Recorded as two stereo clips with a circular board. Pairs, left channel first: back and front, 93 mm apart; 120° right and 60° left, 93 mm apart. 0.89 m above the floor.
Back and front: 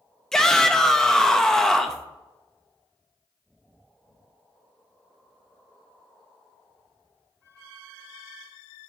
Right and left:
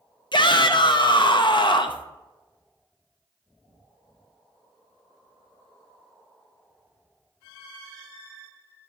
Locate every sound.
0.3 s a shout: 95° right, 0.5 m